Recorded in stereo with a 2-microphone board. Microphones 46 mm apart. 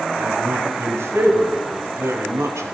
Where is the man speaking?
70° right (ahead or behind), 4.5 m; by 2.7 s 80° right, 3 m.